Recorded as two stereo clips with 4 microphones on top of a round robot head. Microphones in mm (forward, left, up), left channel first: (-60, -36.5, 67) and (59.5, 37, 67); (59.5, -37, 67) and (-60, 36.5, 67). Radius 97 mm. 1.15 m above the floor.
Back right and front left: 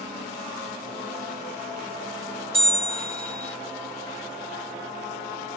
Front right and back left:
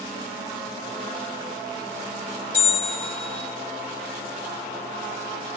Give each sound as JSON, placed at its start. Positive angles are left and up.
{"t": 2.5, "sound": "a bell", "azimuth_deg": 50, "distance_m": 1.4}